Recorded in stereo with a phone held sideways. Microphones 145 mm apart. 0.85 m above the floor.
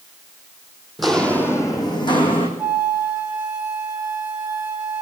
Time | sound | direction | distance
1.0 | footsteps | centre (ahead or behind) | 1.7 m
2.6 | a flute | 15° right (ahead or behind) | 2.0 m